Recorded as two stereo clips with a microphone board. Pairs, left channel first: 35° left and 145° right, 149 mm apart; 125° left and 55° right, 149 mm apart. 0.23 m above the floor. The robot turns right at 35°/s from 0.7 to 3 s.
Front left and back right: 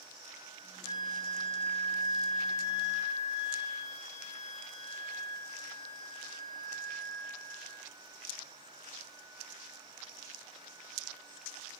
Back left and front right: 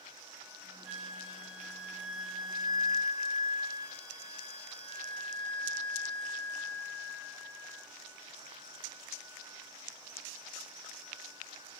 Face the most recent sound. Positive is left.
turn(degrees=5)